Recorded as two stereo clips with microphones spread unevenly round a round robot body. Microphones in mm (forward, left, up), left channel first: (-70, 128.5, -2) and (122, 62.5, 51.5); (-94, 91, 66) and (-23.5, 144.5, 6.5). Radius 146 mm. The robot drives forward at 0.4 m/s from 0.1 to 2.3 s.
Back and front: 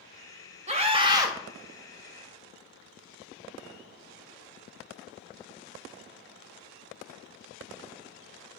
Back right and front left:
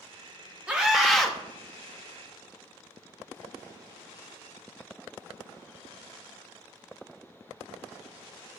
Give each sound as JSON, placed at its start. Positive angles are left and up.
{"t": 0.7, "sound": "a scream", "azimuth_deg": 45, "distance_m": 0.8}